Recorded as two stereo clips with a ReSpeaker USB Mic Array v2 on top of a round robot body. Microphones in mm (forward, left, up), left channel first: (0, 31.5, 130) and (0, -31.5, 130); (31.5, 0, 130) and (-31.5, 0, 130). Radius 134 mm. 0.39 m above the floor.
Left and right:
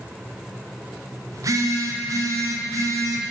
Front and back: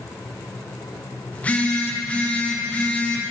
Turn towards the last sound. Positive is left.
turn(degrees=-65)